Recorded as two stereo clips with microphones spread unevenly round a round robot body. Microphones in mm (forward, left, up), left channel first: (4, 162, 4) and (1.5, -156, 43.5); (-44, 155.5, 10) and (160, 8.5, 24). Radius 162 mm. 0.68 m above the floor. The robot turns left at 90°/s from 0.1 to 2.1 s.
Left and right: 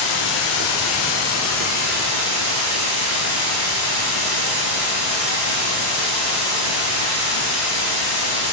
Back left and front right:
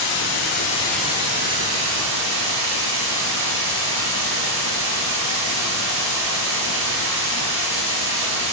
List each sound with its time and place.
0.0 s running water: 135° left, 1.5 m; by 8.5 s 45° right, 1.5 m